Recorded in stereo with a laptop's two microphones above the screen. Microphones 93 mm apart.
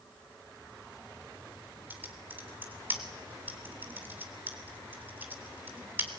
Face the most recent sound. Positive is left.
turn(degrees=-20)  # may be behind; listen again after turning